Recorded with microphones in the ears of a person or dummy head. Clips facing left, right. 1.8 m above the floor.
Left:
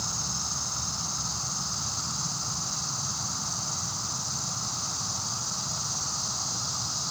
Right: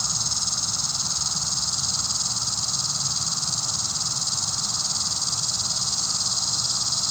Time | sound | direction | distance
0.0 | an insect | 55° right (ahead or behind) | 3 m